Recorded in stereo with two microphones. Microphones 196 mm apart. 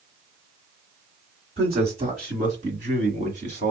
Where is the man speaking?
35° right (ahead or behind), 1.3 m; by 3.7 s 40° right (ahead or behind), 1.9 m.